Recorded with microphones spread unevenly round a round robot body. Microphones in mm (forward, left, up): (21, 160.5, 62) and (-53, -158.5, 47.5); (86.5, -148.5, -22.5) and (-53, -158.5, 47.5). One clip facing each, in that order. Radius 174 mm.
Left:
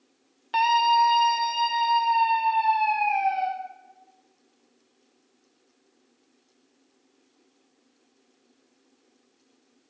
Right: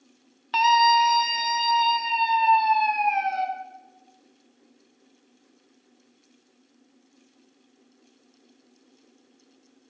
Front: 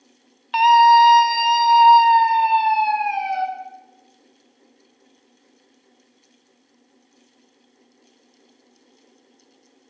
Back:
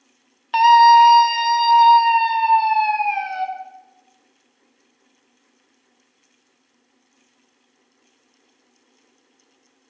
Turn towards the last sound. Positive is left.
turn(degrees=-45)